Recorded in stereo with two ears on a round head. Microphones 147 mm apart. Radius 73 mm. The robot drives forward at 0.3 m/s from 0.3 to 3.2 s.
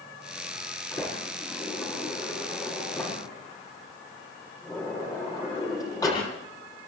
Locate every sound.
0.9 s a sliding door: 20° left (ahead or behind), 7.5 m